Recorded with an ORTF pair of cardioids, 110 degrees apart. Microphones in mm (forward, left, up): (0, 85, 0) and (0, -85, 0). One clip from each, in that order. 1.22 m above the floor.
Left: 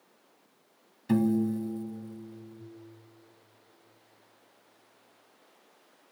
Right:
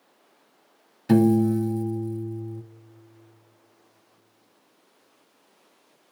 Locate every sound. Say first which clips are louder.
1.1 s a piano: right 8 dB; 45° right, 0.9 m